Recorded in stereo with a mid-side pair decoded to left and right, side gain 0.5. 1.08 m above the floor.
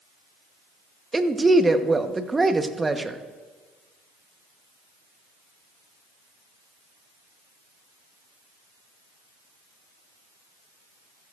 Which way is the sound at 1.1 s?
20° right.